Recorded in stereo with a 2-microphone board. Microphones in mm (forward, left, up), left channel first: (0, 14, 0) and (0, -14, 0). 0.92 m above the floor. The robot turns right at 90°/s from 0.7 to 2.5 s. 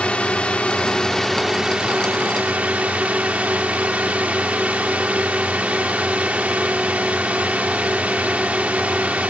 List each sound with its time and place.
0.0 s a drone: 120° left; by 9.3 s 75° right